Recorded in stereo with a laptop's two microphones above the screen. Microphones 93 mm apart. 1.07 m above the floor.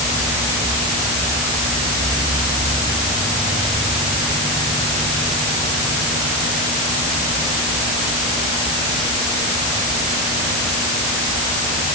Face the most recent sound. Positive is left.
No sound to turn to.